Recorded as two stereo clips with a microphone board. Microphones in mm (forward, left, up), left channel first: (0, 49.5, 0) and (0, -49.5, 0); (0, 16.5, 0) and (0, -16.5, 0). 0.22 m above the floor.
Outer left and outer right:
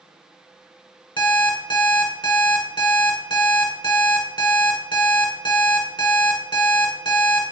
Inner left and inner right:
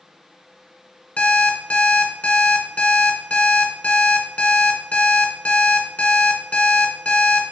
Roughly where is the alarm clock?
Left.